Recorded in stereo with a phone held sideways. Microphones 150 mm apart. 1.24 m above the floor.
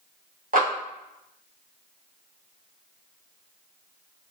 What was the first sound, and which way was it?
A clap, 70° right (ahead or behind).